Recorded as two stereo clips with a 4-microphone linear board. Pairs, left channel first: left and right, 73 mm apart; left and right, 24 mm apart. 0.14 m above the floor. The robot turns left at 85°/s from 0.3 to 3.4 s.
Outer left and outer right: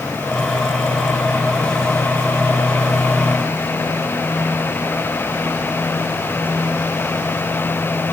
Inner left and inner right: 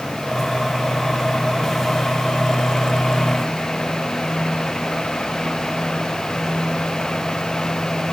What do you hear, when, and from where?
Only background noise.